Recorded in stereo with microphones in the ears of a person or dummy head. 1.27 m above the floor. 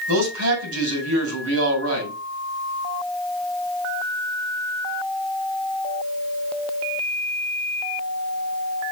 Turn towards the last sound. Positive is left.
turn(degrees=-90)